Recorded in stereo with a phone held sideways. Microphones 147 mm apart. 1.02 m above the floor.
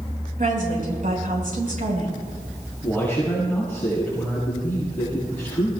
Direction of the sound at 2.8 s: 10° left (ahead or behind).